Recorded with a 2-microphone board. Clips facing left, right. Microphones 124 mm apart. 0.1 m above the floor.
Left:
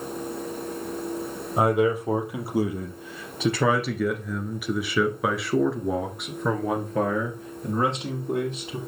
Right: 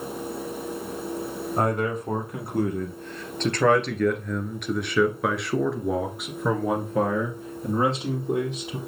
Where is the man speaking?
5° left (ahead or behind), 3 m; by 8.8 s 5° right (ahead or behind), 2.5 m.